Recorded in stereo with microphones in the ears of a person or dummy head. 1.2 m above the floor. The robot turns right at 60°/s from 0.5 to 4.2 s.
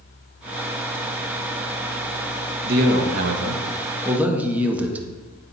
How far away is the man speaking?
About 0.8 m.